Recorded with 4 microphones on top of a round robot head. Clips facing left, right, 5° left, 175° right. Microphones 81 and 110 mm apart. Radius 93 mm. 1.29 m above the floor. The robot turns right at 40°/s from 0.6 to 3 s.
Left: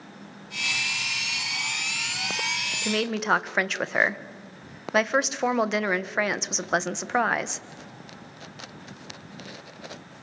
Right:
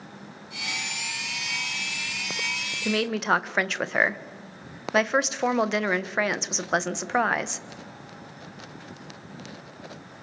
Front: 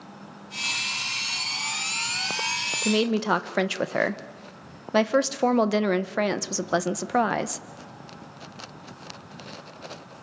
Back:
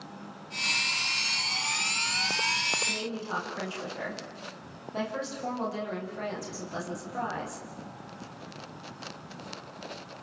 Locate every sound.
2.9 s a woman speaking: 5° right, 1.2 m; by 7.7 s straight ahead, 1.2 m